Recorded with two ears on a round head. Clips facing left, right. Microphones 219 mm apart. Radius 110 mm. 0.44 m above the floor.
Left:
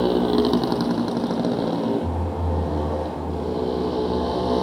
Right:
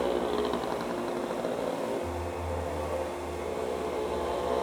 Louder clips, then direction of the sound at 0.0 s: Left 10 dB; 55° left (ahead or behind).